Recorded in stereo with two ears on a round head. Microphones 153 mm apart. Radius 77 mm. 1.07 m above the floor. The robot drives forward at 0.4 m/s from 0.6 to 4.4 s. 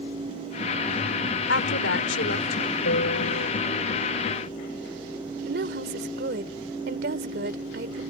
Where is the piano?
80° left; by 3.5 s 75° left (ahead or behind).